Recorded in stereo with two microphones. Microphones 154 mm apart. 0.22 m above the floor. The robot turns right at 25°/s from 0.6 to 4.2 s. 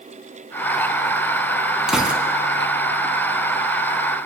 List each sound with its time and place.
1.9 s a gunshot: 5° right (ahead or behind), 1.1 m; by 2.2 s 10° right (ahead or behind), 1.1 m